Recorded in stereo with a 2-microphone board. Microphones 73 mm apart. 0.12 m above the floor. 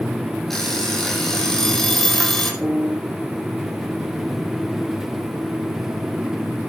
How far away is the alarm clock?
About 3 m.